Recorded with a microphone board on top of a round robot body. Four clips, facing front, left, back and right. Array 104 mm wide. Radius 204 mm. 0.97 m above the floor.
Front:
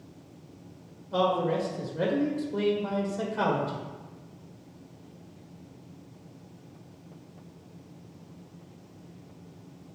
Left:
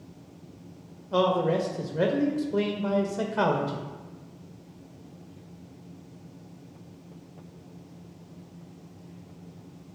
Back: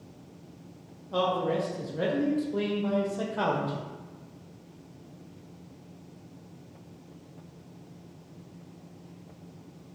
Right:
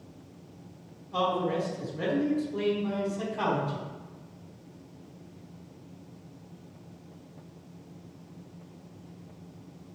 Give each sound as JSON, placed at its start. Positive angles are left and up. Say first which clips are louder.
{"t": 1.1, "sound": "a man speaking", "louder": "left 4 dB, front 1 dB", "azimuth_deg": 95, "distance_m": 1.7}